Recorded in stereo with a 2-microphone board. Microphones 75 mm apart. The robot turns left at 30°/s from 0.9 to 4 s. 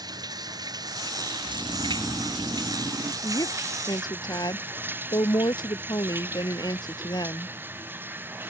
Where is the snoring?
Straight ahead; by 3.1 s 50° right.